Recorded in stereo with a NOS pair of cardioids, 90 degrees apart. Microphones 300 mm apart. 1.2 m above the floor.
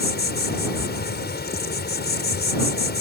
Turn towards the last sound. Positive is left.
turn(degrees=35)